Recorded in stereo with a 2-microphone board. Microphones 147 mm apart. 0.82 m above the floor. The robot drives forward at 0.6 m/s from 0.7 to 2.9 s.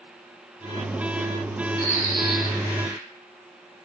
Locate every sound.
1.8 s a bird: 75° right (ahead or behind), 4 m; by 3.0 s 80° right, 4 m